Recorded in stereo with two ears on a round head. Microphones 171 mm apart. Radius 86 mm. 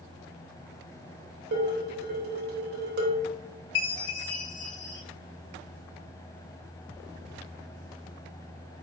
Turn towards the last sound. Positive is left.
turn(degrees=65)  # may be behind; listen again after turning